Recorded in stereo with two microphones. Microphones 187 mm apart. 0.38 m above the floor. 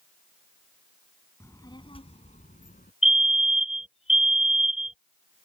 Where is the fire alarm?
35° left (ahead or behind).